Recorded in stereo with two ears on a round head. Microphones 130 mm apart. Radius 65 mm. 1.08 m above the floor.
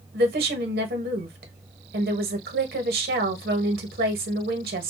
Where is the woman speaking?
70° right (ahead or behind), 0.9 m.